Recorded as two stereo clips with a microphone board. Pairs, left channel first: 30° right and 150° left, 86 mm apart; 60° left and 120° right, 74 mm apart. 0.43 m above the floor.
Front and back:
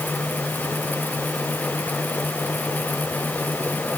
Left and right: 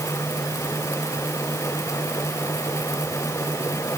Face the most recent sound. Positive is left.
No sound to turn to.